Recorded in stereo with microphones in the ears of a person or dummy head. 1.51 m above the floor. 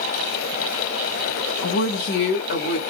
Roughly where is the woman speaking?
Left.